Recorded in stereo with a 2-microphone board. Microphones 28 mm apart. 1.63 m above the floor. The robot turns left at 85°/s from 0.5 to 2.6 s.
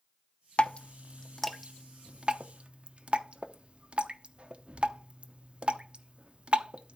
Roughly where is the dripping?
Left.